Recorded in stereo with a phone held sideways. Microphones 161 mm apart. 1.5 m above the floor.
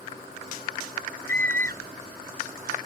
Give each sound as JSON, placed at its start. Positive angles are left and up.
{"t": 1.3, "sound": "a scream", "side_deg": -70}